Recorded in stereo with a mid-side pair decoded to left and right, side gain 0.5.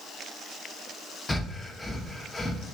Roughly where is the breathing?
Ahead.